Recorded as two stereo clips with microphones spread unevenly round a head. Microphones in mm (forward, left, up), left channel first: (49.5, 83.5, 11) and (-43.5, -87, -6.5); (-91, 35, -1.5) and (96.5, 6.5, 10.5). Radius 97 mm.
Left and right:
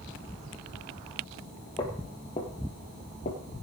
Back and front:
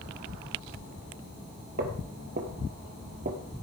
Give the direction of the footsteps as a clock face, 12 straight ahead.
12 o'clock.